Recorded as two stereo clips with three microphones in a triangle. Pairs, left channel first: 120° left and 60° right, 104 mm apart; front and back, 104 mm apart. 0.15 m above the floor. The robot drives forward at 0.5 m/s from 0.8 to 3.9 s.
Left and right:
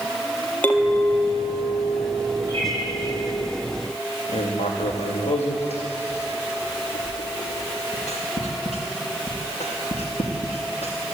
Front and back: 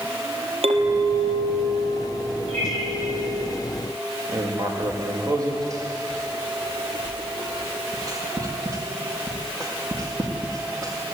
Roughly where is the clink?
Behind.